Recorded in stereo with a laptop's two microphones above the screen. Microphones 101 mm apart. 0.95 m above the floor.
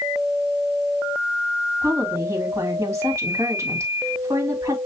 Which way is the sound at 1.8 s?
30° right (ahead or behind).